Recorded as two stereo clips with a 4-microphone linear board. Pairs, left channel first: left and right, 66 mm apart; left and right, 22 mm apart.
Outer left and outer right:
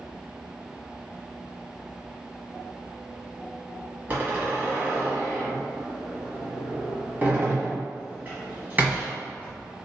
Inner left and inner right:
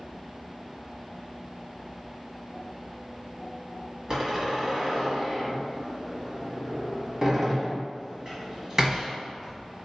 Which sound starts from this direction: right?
A door slam, at 4.1 s.